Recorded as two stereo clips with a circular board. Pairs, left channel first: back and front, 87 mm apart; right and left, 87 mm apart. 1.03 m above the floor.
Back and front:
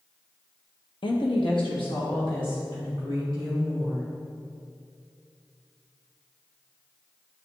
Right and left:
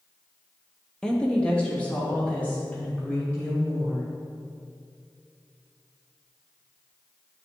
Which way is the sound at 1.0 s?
170° right.